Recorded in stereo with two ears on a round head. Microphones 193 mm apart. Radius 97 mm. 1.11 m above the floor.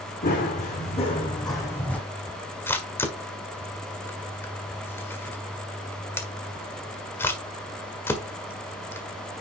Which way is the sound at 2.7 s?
10° left (ahead or behind).